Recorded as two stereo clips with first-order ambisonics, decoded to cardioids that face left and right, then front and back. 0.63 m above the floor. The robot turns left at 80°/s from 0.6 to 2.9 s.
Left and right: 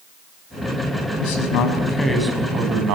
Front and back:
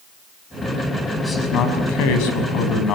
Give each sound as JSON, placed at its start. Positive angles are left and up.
{"t": 1.2, "sound": "a man speaking", "azimuth_deg": 80, "distance_m": 5.5}